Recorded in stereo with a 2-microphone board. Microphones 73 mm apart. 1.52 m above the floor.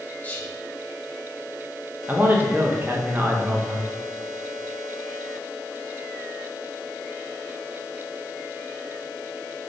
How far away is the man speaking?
About 1.2 m.